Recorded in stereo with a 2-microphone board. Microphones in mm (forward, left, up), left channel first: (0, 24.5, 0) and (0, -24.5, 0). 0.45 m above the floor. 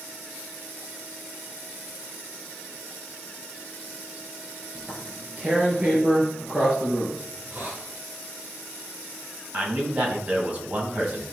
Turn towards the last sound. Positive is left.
turn(degrees=-30)  # may be behind; listen again after turning